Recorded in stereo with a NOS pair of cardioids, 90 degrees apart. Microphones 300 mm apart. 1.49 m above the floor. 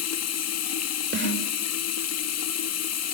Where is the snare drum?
40° right, 5.5 m.